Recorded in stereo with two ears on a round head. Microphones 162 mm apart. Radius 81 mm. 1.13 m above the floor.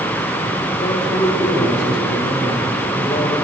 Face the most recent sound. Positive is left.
turn(degrees=45)  # may be behind; listen again after turning